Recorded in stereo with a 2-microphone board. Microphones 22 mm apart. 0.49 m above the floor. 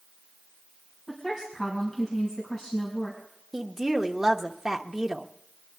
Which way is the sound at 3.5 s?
15° right (ahead or behind).